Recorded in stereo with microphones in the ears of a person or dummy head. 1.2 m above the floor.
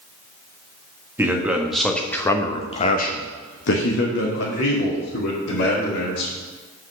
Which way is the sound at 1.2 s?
10° right (ahead or behind).